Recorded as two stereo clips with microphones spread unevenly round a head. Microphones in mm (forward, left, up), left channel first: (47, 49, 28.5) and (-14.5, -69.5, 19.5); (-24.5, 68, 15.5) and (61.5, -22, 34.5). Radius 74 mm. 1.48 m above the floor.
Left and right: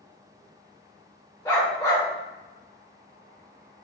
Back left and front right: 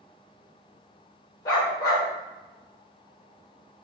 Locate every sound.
1.4 s a dog barking: 90° left, 1.2 m